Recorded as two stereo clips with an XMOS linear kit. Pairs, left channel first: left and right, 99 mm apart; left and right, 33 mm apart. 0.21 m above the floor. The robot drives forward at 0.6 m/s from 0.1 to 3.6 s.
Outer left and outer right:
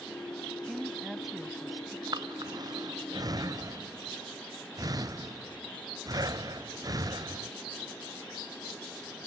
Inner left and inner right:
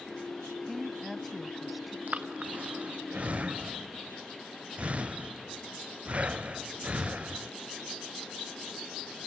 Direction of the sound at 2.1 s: 45° right (ahead or behind).